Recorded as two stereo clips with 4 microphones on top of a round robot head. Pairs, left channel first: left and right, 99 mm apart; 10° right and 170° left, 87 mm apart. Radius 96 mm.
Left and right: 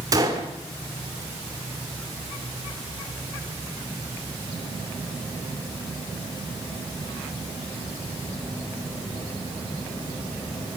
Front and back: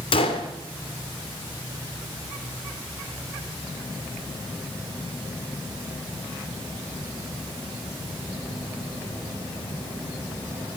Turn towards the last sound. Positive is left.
turn(degrees=-30)